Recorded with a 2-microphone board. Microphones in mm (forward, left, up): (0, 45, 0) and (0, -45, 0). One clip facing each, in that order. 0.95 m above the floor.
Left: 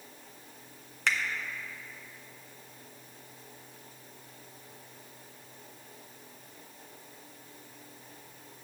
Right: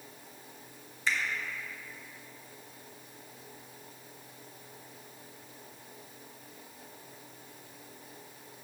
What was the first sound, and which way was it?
A finger snap, 70° left (ahead or behind).